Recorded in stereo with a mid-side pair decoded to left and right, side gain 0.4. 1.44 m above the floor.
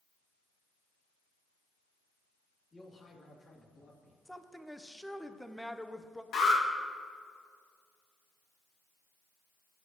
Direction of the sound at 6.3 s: 70° left.